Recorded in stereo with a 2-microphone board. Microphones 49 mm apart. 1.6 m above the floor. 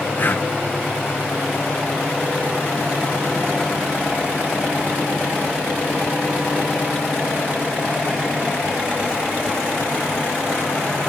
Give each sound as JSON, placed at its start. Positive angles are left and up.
{"t": 0.2, "sound": "breathing", "side_deg": 45}